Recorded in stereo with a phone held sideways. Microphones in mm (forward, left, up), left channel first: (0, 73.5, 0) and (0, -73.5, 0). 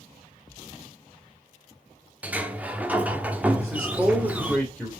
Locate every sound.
2.2 s a sliding door: 10° right (ahead or behind), 0.9 m
3.6 s a man speaking: centre (ahead or behind), 2.5 m